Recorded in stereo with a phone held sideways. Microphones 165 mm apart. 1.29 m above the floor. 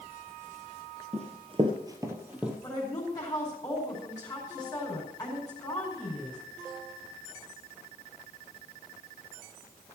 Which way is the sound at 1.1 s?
45° right (ahead or behind).